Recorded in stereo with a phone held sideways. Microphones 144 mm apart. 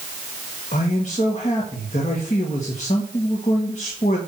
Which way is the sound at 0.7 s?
55° left (ahead or behind).